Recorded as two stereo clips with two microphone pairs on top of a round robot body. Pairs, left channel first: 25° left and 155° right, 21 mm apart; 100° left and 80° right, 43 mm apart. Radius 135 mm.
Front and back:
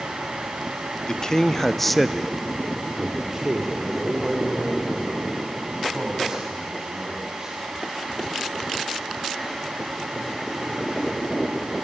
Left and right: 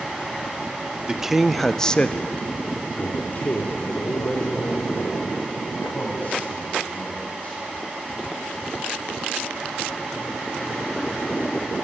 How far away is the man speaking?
About 1.3 m.